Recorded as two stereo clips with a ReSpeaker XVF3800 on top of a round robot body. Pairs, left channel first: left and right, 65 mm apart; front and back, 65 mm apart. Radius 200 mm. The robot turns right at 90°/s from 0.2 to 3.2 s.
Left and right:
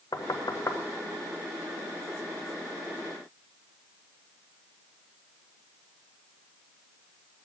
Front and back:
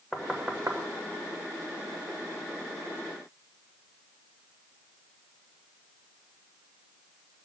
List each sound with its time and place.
0.1 s knocking: 90° left, 1.1 m; by 0.8 s 140° left, 1.1 m